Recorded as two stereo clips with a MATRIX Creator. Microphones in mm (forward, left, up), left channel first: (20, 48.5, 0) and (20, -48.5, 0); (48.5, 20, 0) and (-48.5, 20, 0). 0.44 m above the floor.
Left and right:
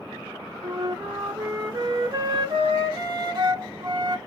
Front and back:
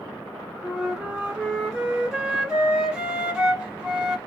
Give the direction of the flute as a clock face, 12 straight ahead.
3 o'clock.